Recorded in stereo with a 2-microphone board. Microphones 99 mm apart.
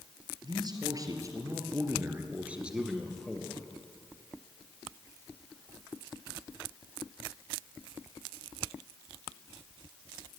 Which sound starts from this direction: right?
A man speaking, at 0.4 s.